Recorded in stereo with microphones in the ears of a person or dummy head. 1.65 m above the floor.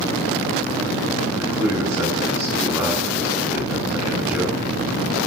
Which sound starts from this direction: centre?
A man speaking, at 1.3 s.